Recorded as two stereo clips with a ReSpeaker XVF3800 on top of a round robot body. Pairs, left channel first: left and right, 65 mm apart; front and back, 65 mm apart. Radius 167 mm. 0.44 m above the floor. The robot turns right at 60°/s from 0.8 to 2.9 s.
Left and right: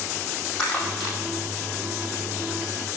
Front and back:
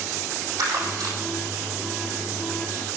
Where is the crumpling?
165° left, 5 m; by 1.1 s 170° right, 5 m.